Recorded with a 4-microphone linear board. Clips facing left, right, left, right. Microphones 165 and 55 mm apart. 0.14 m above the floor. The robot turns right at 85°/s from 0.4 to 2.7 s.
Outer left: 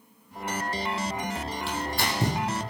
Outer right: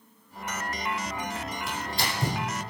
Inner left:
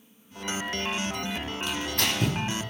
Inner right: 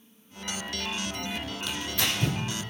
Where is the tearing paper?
30° left (ahead or behind), 3.5 m; by 2.4 s 75° left (ahead or behind), 3.5 m.